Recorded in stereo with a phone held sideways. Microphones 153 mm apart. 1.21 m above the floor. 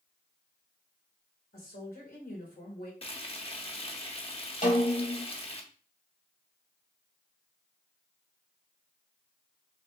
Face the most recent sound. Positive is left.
turn(degrees=60)  # may be behind; listen again after turning